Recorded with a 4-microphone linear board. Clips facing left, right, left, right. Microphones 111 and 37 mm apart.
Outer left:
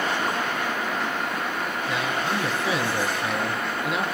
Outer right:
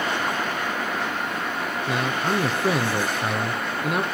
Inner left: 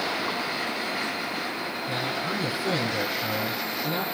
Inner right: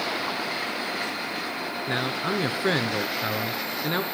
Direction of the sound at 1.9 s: 55° right (ahead or behind).